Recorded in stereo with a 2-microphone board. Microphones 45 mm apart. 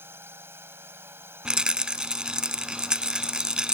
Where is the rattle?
20° right (ahead or behind).